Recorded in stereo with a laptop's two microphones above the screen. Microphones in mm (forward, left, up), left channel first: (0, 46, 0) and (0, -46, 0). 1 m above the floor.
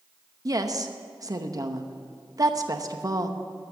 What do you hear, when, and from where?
0.5 s a woman speaking: 45° right (ahead or behind), 0.9 m